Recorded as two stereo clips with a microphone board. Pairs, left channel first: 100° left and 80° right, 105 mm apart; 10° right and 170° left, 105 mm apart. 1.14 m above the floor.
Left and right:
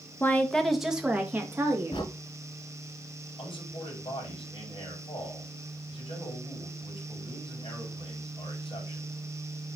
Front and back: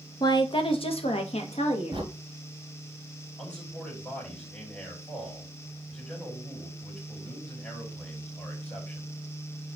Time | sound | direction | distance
0.2 | a woman speaking | 35° left | 0.9 m
1.9 | a crack | 135° left | 2.5 m
3.4 | a man speaking | 65° left | 4 m